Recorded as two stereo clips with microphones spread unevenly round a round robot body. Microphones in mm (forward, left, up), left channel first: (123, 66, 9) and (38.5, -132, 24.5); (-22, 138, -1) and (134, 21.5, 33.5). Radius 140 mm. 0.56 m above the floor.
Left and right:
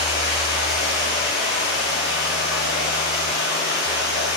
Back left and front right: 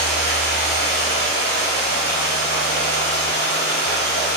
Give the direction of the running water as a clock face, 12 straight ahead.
8 o'clock.